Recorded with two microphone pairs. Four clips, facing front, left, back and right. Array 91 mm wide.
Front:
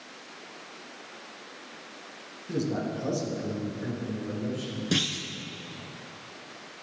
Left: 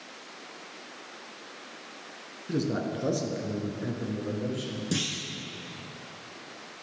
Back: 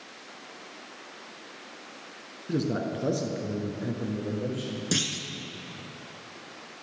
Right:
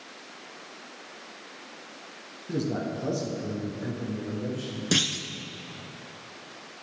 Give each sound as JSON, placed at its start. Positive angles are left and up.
{"t": 2.5, "sound": "a man speaking", "azimuth_deg": 145, "distance_m": 1.1}
{"t": 4.9, "sound": "a clunk", "azimuth_deg": -85, "distance_m": 0.8}